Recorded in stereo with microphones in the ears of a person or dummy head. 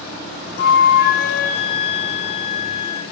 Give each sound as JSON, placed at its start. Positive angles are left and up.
{"t": 0.6, "sound": "a flute", "side_deg": 65, "distance_m": 1.4}